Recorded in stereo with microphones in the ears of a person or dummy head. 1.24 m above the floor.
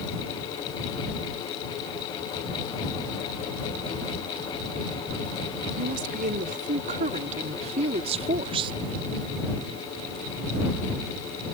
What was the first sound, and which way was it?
A woman speaking, 50° right (ahead or behind).